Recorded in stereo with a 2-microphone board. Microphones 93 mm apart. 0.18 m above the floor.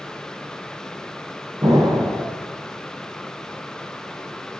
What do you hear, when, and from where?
1.6 s an explosion: 35° right (ahead or behind), 8.5 m